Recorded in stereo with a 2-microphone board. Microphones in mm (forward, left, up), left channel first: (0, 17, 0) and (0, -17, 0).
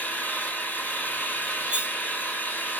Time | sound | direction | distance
0.0 | an engine running | 60° left (ahead or behind) | 1.5 m
1.7 | cutlery clinking | 35° right (ahead or behind) | 1.5 m